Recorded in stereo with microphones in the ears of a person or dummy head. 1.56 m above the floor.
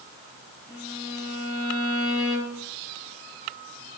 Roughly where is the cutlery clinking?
I don't hear cutlery clinking.